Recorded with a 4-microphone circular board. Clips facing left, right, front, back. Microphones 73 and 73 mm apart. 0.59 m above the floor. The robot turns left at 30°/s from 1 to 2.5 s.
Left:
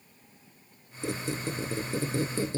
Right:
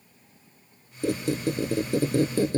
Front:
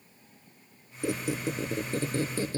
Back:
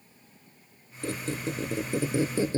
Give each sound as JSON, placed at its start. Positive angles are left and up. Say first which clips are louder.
{"t": 1.0, "sound": "a squeak", "louder": "right 7 dB, front 2 dB", "azimuth_deg": -75, "distance_m": 0.6}